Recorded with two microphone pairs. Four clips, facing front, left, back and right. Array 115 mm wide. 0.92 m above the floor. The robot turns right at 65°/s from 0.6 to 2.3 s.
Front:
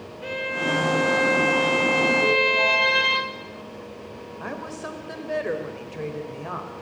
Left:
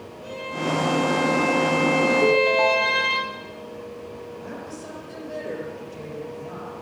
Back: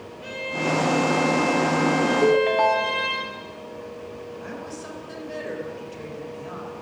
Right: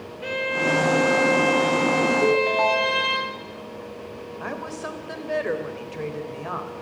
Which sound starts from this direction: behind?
A ringtone, at 2.2 s.